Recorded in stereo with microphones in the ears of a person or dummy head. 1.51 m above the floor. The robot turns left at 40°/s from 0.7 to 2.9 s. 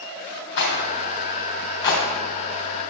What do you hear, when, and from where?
0.6 s a rattle: 65° left (ahead or behind), 3 m; by 2.0 s 20° left (ahead or behind), 3 m